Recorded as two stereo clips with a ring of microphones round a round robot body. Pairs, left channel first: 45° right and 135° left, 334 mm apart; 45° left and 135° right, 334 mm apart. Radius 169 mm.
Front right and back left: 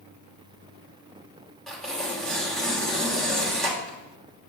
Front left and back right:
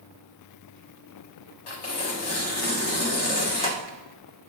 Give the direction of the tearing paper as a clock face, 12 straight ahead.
11 o'clock.